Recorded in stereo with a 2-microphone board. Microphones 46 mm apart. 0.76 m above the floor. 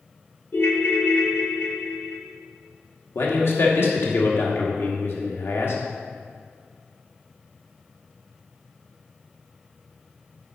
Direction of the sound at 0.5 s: 50° left (ahead or behind).